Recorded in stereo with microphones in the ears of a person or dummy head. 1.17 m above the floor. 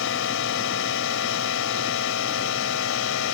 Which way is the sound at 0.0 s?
60° left (ahead or behind).